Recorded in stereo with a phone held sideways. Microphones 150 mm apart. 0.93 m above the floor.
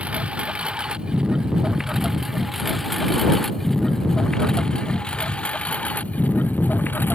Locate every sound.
0.0 s a lawn mower: 10° right (ahead or behind); by 7.2 s 15° left (ahead or behind)